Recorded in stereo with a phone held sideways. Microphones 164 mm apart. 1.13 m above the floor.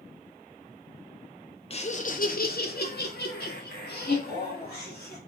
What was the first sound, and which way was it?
Laughter, 35° left (ahead or behind).